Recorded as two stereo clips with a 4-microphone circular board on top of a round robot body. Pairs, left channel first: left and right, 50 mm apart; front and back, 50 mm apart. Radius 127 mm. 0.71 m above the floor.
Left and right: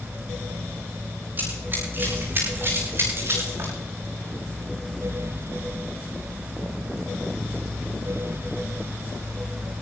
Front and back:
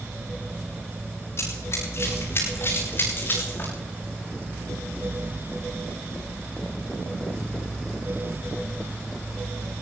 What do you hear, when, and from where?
1.4 s running footsteps: 40° right, 9.5 m; by 3.7 s 50° right, 11.5 m